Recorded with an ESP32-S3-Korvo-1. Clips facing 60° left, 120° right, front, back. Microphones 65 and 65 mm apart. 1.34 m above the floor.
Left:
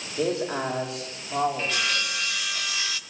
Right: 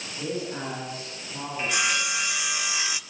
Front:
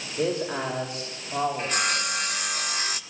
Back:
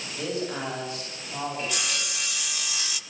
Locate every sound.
0.2 s a man speaking: 45° left, 6.5 m
1.6 s sawing: 45° right, 1.2 m